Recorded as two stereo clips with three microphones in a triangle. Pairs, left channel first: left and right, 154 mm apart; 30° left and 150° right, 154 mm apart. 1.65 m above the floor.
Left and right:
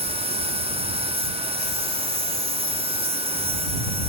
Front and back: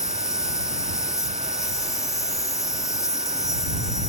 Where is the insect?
40° right.